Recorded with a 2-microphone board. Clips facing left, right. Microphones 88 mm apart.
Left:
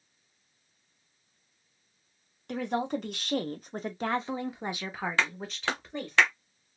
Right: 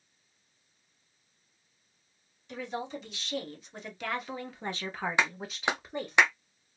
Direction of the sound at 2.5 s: 60° left (ahead or behind).